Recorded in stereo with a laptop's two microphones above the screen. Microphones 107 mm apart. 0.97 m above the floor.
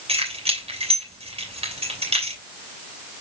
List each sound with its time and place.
0.1 s keys jangling: 70° right (ahead or behind), 3 m